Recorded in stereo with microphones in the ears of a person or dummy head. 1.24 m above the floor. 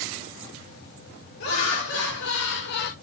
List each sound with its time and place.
1.4 s laughter: 60° left (ahead or behind), 1.7 m; by 2.9 s 40° left (ahead or behind), 0.5 m